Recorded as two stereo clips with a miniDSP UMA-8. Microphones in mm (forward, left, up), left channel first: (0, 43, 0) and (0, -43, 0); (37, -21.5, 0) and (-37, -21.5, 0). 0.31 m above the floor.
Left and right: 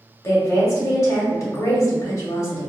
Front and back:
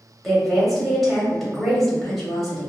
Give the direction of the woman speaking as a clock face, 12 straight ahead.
9 o'clock.